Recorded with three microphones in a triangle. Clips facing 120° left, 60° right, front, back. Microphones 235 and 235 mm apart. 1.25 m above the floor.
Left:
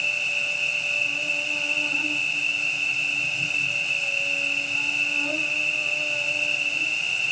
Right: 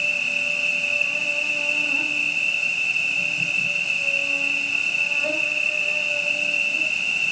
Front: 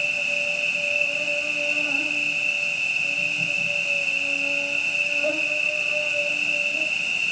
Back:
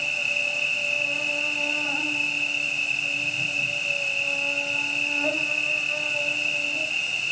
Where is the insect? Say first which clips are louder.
Right 4 dB, front 4 dB; 55° right, 4 m.